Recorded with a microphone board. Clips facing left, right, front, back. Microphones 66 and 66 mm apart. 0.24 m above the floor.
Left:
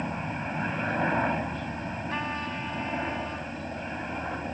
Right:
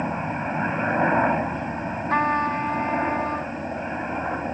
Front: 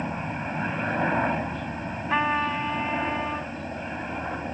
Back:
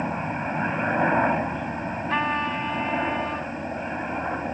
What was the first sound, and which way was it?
A helicopter, 120° right.